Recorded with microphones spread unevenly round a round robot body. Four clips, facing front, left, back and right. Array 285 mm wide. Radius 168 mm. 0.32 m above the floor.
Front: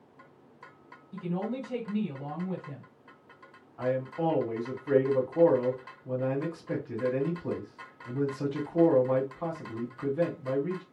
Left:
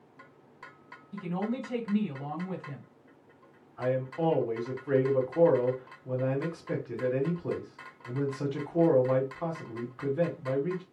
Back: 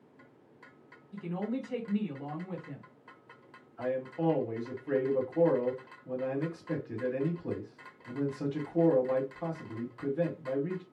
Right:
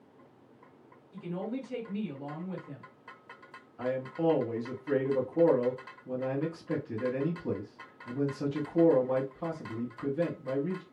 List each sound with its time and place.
1.1 s a woman speaking: 75° left, 1.8 m
3.8 s a man speaking: 55° left, 1.8 m